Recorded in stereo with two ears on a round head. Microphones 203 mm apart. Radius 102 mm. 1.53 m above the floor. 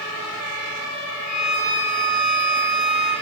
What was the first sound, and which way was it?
A violin, 25° right (ahead or behind).